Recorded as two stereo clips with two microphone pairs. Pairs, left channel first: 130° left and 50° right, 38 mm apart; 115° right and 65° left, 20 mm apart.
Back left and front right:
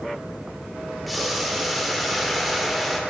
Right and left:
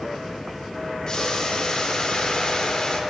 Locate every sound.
1.1 s boiling: 145° right, 0.9 m